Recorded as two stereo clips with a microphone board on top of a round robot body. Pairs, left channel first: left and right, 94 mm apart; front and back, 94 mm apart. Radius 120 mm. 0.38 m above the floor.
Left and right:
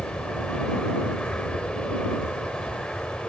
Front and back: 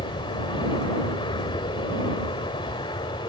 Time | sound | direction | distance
0.0 | an aircraft | 10° left | ?